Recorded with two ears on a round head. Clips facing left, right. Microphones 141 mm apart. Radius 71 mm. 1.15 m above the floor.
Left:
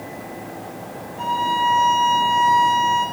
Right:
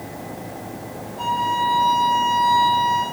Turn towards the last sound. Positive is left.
turn(degrees=5)  # may be behind; listen again after turning